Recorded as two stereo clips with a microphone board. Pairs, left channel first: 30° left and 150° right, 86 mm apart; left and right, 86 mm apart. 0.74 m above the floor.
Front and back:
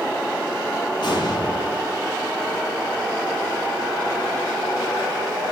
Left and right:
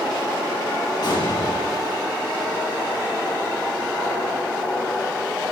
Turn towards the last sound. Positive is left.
turn(degrees=55)